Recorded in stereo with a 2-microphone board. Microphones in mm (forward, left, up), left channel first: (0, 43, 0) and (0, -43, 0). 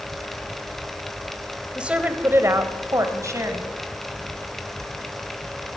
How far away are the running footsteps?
I don't hear running footsteps.